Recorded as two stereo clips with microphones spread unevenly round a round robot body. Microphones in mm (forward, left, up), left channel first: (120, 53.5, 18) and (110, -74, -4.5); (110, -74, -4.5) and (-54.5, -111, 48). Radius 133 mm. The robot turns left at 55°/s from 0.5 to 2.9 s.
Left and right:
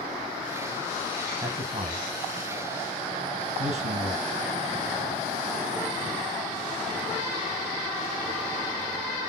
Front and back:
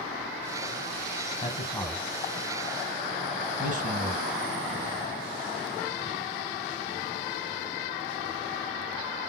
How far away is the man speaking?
About 2 m.